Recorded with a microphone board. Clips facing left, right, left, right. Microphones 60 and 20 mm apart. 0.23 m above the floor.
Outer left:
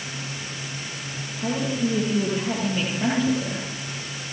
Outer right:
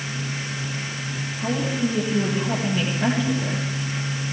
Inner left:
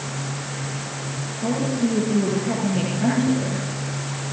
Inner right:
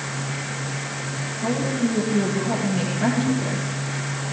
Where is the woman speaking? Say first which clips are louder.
Even, inner left 1 dB; 5° left (ahead or behind), 7 m.